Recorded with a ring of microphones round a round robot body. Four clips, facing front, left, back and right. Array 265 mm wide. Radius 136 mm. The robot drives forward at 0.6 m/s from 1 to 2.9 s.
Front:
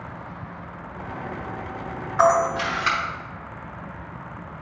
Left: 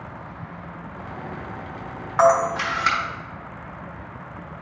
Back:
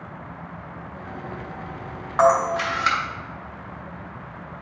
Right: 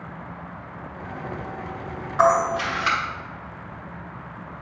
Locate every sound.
2.2 s a camera shutter: 140° left, 2 m; by 3.0 s 145° left, 2.5 m